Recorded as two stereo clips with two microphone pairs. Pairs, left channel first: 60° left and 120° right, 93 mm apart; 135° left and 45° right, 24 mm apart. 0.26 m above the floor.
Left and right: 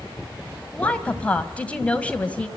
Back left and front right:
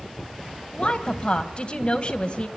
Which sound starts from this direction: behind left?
A woman speaking, at 0.7 s.